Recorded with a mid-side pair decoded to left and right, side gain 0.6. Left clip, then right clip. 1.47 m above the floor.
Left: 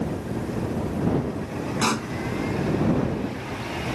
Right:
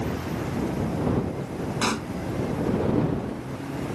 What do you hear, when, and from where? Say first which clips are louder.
1.8 s a pop: left 2 dB; 15° left